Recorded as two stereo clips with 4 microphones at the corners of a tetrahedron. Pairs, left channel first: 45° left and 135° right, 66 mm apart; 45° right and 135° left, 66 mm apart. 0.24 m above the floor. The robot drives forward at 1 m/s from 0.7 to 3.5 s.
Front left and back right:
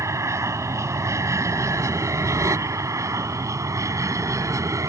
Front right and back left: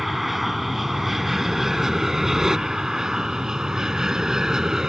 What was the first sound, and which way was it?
An aircraft, 140° right.